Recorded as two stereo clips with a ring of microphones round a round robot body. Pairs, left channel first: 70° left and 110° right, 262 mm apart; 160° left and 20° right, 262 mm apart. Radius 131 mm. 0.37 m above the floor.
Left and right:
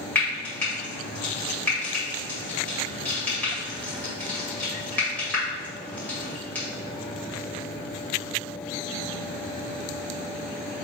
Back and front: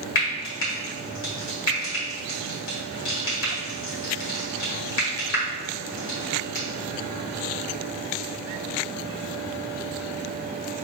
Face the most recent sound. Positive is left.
turn(degrees=150)